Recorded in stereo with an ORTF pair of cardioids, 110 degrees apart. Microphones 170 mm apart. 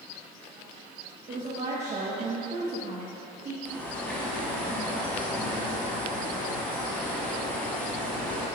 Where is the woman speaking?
45° right, 1.5 m.